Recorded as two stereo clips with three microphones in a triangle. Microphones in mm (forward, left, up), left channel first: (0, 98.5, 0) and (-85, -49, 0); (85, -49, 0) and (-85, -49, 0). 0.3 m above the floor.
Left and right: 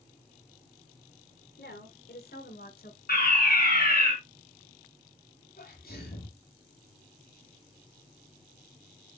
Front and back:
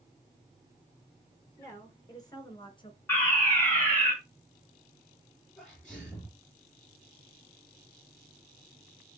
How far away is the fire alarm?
About 5 m.